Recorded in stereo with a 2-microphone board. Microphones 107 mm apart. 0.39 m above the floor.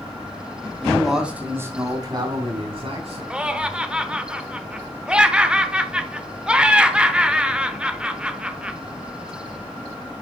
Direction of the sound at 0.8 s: 10° left (ahead or behind).